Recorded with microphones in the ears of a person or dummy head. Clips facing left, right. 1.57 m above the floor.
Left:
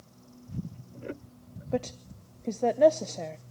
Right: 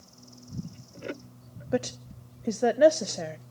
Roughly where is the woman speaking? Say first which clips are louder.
Right 2 dB; centre.